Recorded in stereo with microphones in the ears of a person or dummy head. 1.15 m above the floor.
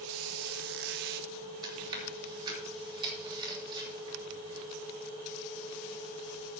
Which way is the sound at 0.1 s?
55° right (ahead or behind).